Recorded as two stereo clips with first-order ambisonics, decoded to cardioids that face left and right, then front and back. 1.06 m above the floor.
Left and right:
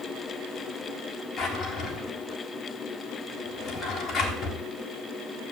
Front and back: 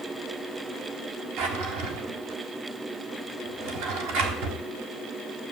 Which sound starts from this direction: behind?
A drawer, at 1.4 s.